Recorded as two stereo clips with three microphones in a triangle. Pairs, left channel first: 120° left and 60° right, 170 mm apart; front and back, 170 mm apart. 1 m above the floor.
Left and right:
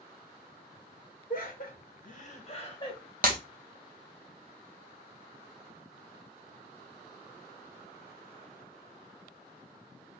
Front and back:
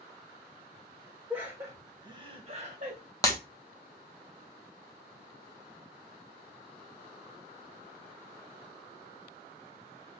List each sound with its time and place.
1.3 s laughter: 100° left, 1.3 m; by 3.0 s straight behind, 1.0 m
3.2 s breaking glass: 70° right, 0.7 m